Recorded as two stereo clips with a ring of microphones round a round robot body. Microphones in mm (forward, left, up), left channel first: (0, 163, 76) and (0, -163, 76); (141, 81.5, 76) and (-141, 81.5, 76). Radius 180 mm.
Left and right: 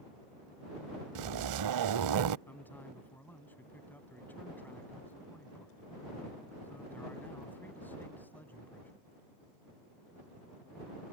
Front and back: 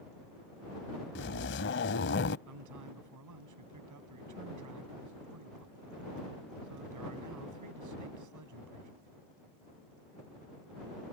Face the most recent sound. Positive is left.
turn(degrees=175)